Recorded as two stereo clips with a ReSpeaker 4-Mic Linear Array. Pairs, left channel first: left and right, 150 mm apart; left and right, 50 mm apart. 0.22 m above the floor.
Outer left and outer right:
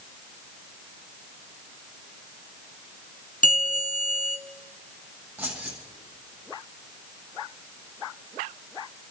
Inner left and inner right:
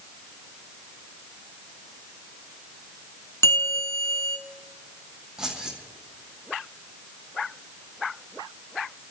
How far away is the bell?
About 2.5 m.